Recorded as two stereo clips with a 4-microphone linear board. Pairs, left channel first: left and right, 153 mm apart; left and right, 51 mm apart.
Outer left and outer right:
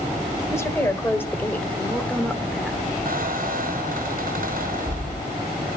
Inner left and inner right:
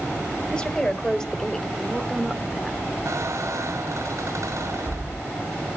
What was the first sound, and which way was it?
A woman speaking, 20° left (ahead or behind).